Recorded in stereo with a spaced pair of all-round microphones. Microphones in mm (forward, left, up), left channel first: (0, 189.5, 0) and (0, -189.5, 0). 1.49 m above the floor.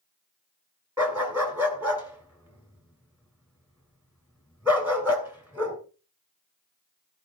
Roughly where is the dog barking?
Centre.